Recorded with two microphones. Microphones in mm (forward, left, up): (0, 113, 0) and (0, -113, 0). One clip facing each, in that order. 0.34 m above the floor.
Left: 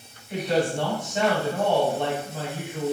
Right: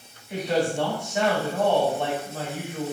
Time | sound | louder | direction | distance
0.3 | a woman speaking | even | 10° right (ahead or behind) | 1.4 m